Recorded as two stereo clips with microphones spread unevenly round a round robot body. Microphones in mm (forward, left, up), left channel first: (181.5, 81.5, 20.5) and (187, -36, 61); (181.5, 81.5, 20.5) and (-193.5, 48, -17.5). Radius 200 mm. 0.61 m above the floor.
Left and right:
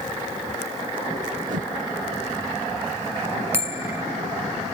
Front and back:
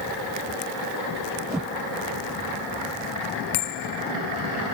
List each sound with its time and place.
1.5 s a whoosh: 90° right
3.5 s a bell: 20° right